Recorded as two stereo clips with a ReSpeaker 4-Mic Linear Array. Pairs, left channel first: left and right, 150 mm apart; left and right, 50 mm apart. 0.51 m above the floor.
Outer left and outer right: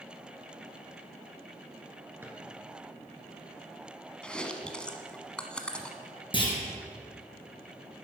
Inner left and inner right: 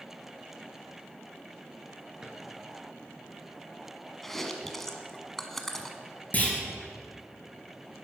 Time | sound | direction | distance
2.2 | a drawer | 15° right (ahead or behind) | 2.5 m
4.2 | chewing | 5° left (ahead or behind) | 1.0 m
6.3 | a clunk | 35° left (ahead or behind) | 3 m